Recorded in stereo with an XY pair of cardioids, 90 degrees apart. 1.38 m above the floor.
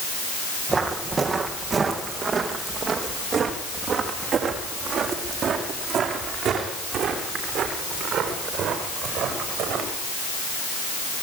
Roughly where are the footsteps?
Ahead right.